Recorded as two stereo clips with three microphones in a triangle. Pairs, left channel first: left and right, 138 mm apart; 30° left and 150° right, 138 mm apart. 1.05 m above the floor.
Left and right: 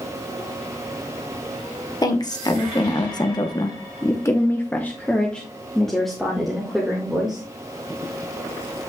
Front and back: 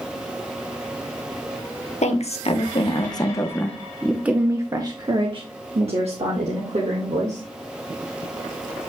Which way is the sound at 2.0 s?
35° left.